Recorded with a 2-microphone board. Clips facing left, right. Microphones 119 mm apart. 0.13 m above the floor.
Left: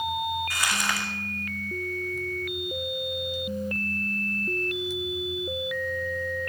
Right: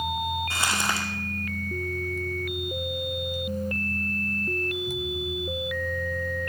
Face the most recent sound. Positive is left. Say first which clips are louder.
# right 1 dB
turn(degrees=-30)  # may be behind; listen again after turning